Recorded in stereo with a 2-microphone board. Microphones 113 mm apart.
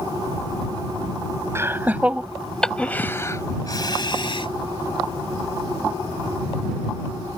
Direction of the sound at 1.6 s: 25° right (ahead or behind).